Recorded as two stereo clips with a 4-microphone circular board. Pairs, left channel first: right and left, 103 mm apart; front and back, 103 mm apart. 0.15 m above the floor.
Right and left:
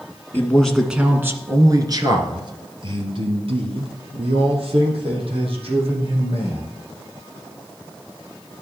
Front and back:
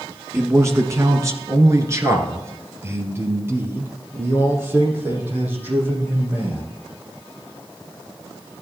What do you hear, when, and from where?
0.3 s a man speaking: 140° right, 1.2 m; by 6.7 s 110° left, 6 m